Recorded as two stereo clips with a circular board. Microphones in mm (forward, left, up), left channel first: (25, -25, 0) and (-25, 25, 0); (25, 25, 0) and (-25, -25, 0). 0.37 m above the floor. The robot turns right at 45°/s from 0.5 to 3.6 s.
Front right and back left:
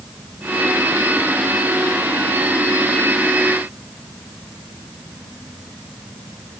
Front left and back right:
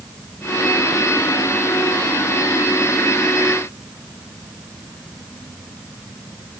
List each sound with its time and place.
Only background noise.